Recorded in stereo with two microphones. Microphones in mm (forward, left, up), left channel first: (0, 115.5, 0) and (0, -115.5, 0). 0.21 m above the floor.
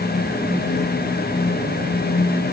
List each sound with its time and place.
Only background noise.